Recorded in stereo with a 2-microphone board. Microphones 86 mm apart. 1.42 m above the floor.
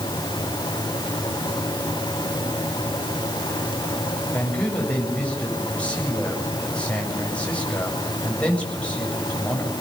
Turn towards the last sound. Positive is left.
turn(degrees=15)  # may be behind; listen again after turning